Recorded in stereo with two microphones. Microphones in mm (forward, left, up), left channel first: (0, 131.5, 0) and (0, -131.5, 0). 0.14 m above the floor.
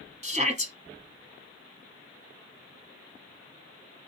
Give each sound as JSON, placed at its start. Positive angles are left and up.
{"t": 0.2, "sound": "a shout", "side_deg": -25, "distance_m": 1.3}